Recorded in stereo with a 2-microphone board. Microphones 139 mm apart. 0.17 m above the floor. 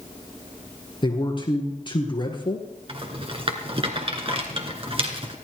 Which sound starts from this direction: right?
A rattle, at 2.9 s.